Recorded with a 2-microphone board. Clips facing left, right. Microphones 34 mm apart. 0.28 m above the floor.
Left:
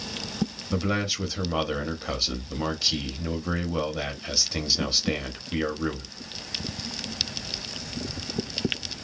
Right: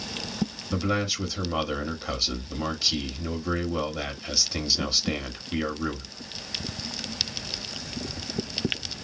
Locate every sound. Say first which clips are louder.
0.7 s a man speaking: even; 5° left (ahead or behind), 0.9 m